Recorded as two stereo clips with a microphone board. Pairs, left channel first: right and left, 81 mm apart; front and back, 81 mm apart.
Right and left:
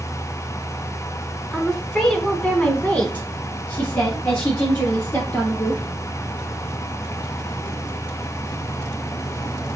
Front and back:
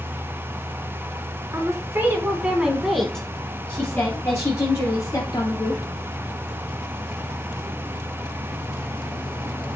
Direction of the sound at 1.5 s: 175° right.